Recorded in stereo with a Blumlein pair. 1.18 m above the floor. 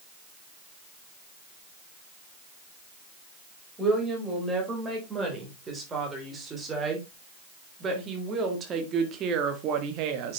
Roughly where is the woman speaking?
Ahead.